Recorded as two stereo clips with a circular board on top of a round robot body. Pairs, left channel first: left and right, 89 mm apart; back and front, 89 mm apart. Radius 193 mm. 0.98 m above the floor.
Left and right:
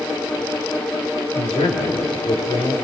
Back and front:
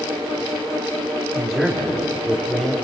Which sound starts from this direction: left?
A man speaking, at 1.3 s.